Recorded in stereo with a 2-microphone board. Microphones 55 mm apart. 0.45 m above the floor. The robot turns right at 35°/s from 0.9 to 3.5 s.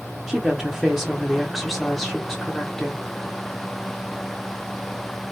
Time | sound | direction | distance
0.3 | a woman speaking | 10° right (ahead or behind) | 0.7 m